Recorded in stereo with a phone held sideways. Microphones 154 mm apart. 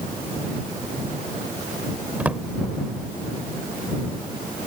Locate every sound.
2.2 s a drawer: 10° right (ahead or behind)